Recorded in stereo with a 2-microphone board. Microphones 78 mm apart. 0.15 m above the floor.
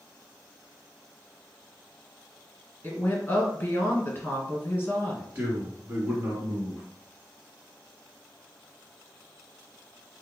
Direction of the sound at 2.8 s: 30° left (ahead or behind).